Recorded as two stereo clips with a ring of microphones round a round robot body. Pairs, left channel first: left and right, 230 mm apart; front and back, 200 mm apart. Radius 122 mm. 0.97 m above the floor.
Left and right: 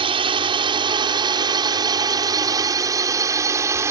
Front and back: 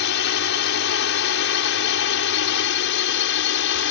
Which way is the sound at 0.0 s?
25° right.